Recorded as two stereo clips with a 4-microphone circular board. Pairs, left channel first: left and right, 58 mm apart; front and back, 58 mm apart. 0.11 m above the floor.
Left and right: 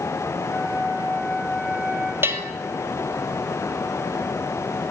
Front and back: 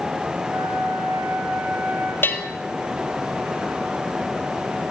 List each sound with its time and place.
0.5 s a flute: 170° right, 9 m
2.2 s a bell: 50° right, 2 m